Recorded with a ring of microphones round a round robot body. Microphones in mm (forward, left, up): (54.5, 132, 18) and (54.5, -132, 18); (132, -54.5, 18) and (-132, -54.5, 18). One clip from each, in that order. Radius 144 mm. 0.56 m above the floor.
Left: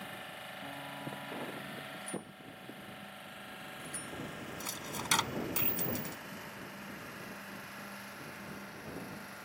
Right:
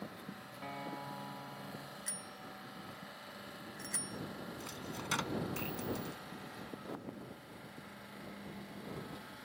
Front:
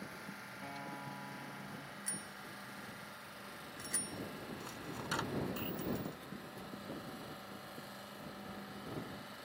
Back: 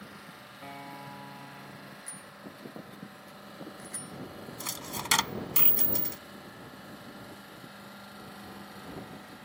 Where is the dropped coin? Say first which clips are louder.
Left 7 dB, back 8 dB; 160° left.